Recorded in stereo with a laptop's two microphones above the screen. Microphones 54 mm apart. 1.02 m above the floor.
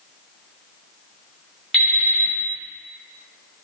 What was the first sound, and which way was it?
An alarm clock, centre (ahead or behind).